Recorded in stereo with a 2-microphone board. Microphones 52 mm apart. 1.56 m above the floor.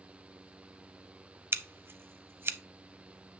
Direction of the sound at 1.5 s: 45° right (ahead or behind).